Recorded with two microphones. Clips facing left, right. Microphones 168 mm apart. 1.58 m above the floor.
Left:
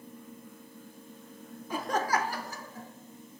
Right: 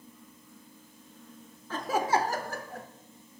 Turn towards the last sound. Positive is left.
turn(degrees=-70)  # may be behind; listen again after turning